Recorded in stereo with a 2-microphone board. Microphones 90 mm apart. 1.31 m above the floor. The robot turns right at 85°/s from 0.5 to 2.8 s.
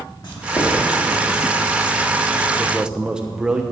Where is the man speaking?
10° left (ahead or behind), 0.7 m; by 3.6 s 10° right (ahead or behind), 0.7 m.